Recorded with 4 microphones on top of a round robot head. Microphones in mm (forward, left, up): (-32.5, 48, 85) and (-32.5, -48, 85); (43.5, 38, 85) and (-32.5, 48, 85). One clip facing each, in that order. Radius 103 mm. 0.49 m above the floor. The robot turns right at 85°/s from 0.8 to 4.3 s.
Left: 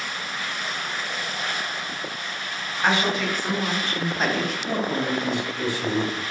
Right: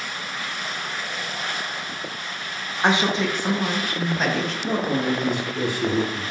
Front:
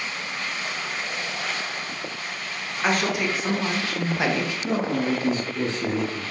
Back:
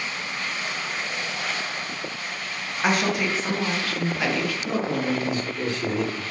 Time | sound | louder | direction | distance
2.8 | a woman speaking | right 2 dB, even | 115° right | 0.7 m
4.6 | a man speaking | right 4 dB, front 3 dB | 70° right | 1.1 m